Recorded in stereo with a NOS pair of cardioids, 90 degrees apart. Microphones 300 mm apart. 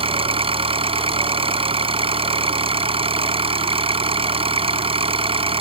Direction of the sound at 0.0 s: 20° right.